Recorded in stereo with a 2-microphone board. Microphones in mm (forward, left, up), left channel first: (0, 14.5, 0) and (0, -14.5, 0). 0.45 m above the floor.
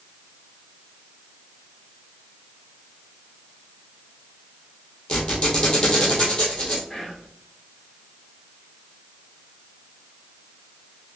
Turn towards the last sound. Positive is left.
turn(degrees=25)  # may be behind; listen again after turning